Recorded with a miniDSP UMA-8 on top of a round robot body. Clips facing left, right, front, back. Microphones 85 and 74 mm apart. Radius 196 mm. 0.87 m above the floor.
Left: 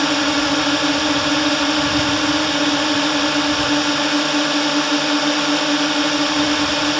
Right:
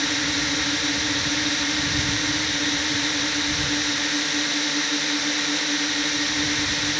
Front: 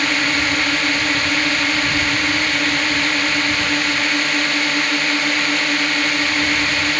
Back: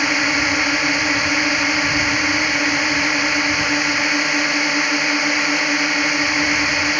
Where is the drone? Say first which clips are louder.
Left 9 dB, even; 105° left.